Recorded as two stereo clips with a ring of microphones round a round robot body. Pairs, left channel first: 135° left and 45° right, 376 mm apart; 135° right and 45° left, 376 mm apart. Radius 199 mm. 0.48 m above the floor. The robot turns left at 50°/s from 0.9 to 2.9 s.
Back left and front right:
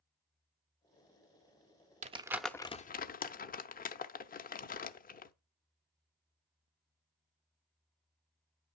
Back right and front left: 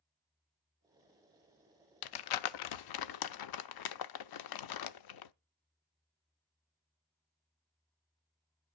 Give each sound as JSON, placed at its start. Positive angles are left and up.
{"t": 2.0, "sound": "crumpling", "azimuth_deg": -115, "distance_m": 0.7}